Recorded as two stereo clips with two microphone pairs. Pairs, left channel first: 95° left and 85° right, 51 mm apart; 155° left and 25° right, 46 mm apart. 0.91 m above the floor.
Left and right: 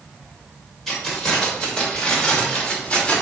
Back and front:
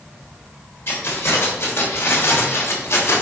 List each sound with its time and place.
0.9 s keys jangling: 175° right, 3 m; by 3.2 s 165° left, 2 m